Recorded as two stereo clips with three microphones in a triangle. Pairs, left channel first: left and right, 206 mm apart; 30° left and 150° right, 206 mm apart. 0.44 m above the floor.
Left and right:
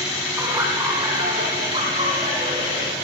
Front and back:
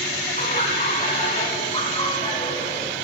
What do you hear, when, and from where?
0.4 s laughter: 15° right, 3.5 m; by 3.0 s 40° right, 6.5 m